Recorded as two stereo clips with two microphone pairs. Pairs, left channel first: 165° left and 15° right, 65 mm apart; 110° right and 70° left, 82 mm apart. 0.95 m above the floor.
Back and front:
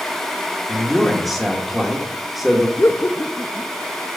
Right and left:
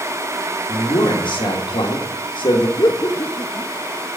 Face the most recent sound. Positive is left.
turn(degrees=-145)